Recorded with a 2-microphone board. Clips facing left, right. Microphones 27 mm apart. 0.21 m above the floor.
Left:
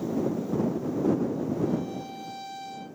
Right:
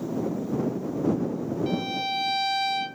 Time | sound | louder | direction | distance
1.7 | a violin | right 4 dB | 80° right | ?